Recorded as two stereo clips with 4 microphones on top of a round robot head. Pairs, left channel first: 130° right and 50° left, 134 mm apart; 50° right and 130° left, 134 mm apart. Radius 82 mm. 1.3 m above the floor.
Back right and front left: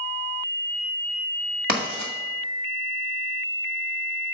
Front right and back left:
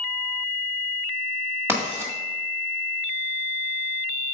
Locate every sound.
1.7 s writing: 60° left, 1.7 m